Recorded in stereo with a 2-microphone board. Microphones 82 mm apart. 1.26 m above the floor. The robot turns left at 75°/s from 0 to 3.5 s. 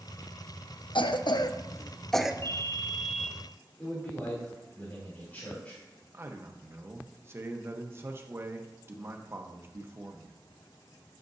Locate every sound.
0.9 s a cough: 80° left, 0.7 m; by 2.3 s 10° right (ahead or behind), 0.7 m
2.4 s a ringtone: 110° right, 0.7 m; by 3.3 s straight behind, 0.7 m
3.8 s a man speaking: 20° left (ahead or behind), 3 m
6.1 s a man speaking: 30° right (ahead or behind), 1.0 m